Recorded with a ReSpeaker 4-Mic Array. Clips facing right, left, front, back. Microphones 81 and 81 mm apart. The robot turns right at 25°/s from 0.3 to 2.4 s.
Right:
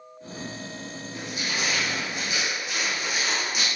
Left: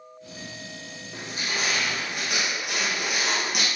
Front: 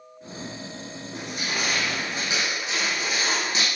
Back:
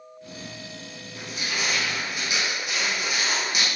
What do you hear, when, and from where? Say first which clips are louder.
1.1 s crushing: left 1 dB, front 1 dB; 30° left, 6.5 m; by 3.6 s 60° left, 6.5 m